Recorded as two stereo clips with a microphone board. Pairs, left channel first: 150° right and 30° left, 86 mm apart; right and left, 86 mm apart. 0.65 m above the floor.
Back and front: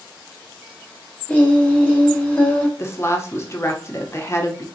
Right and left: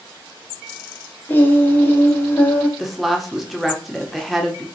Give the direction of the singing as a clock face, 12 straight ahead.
3 o'clock.